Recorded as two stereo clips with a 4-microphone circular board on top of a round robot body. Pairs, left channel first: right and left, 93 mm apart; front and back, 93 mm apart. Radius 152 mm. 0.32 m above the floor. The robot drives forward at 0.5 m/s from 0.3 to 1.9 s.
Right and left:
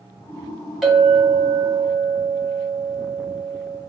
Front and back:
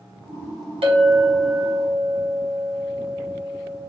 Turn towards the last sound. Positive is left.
turn(degrees=180)